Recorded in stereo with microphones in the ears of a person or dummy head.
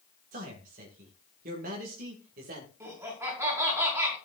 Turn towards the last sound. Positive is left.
turn(degrees=-15)  # may be behind; listen again after turning